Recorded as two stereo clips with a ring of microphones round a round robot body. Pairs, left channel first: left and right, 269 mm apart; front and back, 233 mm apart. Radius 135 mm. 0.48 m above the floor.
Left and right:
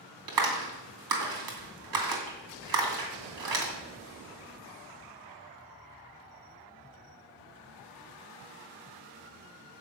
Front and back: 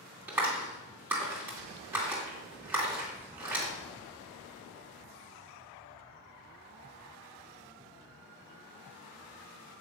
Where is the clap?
95° right, 2.5 m.